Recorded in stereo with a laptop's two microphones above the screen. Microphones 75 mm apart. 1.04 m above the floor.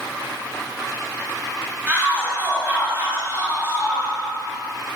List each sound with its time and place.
1.9 s a shout: 20° right (ahead or behind), 6 m; by 4.1 s 35° right (ahead or behind), 9 m